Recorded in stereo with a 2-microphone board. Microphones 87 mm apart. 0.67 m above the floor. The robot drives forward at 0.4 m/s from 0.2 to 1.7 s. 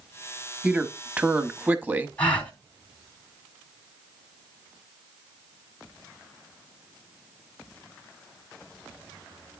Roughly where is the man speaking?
Centre.